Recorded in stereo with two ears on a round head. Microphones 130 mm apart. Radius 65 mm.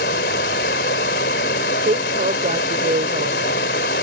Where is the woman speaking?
50° right (ahead or behind).